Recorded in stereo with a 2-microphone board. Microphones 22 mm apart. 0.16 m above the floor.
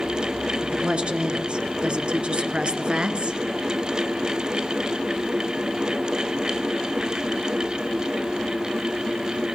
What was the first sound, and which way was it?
A woman speaking, 50° right (ahead or behind).